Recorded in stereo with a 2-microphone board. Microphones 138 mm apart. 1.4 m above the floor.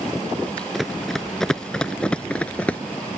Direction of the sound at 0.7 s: Centre (ahead or behind).